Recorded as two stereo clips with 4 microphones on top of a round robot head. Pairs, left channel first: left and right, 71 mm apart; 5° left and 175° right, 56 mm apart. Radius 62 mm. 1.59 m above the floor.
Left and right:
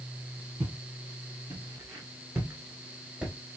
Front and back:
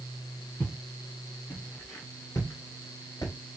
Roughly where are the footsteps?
Right.